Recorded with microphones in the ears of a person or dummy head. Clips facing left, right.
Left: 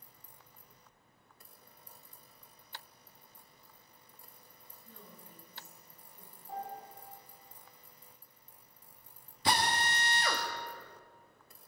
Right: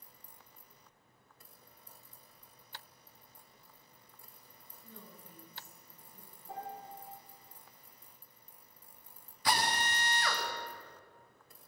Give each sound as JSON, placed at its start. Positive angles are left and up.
{"t": 4.8, "sound": "a woman speaking", "side_deg": -85, "distance_m": 7.0}
{"t": 6.5, "sound": "a piano", "side_deg": -60, "distance_m": 6.5}
{"t": 9.4, "sound": "a drill", "side_deg": 25, "distance_m": 1.6}